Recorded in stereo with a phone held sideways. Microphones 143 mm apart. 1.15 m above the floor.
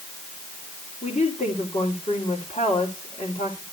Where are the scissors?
No scissors in this recording.